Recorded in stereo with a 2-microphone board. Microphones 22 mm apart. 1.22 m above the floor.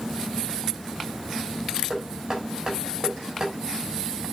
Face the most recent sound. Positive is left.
turn(degrees=-30)  # may be behind; listen again after turning